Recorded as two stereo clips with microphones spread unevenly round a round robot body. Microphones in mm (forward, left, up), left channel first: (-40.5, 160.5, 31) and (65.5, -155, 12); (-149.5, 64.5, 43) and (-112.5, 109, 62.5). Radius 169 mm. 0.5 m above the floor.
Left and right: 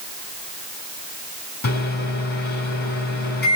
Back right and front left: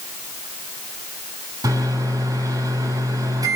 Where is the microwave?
45° left, 4.5 m.